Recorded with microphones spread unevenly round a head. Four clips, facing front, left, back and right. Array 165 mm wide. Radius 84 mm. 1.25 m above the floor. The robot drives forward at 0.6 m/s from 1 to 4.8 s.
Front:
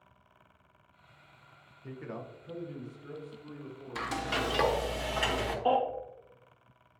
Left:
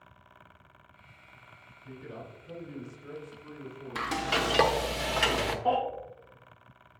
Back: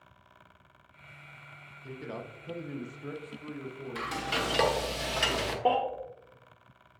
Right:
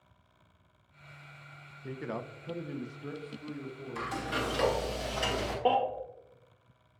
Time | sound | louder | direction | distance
1.8 | a man speaking | right 6 dB, back 1 dB | 85° right | 0.6 m
4.0 | frying | left 4 dB, front 1 dB | 80° left | 1.0 m
5.7 | a baby crying | right 1 dB, back 1 dB | 135° right | 1.9 m